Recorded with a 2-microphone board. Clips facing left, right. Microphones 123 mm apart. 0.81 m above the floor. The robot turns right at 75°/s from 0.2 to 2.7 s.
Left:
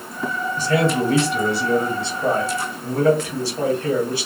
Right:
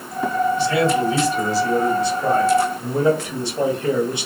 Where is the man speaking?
40° left, 1.0 m; by 4.3 s 160° right, 1.0 m.